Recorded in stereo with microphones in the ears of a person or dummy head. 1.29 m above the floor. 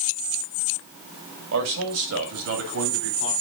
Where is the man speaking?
80° right, 1.9 m; by 3.3 s 70° right (ahead or behind), 3 m.